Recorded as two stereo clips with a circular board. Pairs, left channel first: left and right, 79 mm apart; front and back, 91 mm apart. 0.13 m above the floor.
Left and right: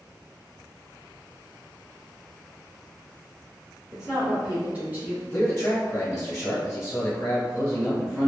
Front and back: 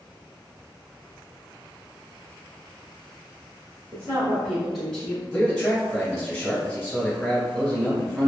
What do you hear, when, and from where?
3.9 s a woman speaking: 175° left, 1.7 m; by 5.2 s 60° right, 1.7 m
5.3 s a man speaking: 55° left, 1.5 m